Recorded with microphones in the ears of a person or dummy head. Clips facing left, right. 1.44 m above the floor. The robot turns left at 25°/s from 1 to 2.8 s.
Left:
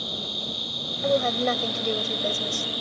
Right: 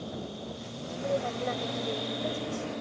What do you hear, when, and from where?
0.0 s an insect: 95° left; by 2.8 s 50° left
1.0 s a woman speaking: 105° left; by 2.7 s 60° left